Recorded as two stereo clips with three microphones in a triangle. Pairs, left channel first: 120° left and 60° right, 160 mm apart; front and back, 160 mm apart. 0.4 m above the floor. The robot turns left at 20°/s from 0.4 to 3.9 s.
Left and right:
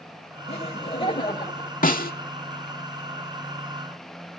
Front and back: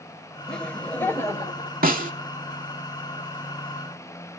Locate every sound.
0.5 s laughter: 85° left, 1.4 m; by 1.8 s 60° left, 1.4 m
1.8 s a snare drum: 155° left, 0.8 m; by 2.1 s 145° left, 0.8 m